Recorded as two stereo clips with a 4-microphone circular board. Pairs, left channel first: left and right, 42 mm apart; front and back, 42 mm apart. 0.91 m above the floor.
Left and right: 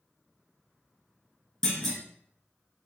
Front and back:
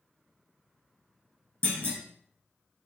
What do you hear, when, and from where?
1.6 s a clunk: 165° left, 1.1 m